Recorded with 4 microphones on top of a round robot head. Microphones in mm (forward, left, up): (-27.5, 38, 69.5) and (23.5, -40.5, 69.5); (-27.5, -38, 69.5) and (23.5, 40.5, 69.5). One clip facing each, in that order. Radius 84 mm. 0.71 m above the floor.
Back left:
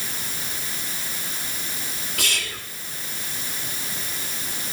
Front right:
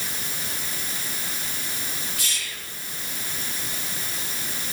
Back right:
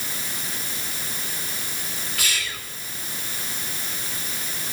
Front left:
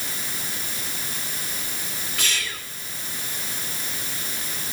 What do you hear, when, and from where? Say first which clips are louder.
2.2 s whispering: back left 5 dB, front left 1 dB; 130° left, 2 m